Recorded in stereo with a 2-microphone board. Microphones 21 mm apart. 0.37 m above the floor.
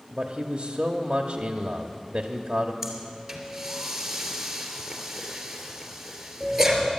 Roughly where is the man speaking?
Right.